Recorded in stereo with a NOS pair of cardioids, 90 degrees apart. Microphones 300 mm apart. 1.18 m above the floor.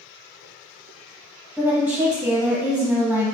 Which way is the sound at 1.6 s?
Straight ahead.